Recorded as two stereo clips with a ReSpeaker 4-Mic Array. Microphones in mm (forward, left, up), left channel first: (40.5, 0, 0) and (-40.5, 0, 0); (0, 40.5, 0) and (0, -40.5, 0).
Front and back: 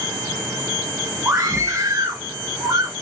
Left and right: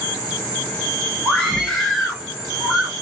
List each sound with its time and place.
1.2 s a scream: 170° right, 1.7 m; by 2.9 s 165° right, 2.5 m